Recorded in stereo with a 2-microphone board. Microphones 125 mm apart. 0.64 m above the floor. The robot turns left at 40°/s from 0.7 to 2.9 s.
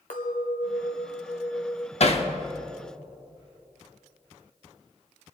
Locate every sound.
0.1 s a clink: 90° left, 1.3 m; by 1.9 s 40° left, 1.3 m
2.0 s hammering: 55° left (ahead or behind), 0.9 m; by 2.3 s 50° left (ahead or behind), 0.9 m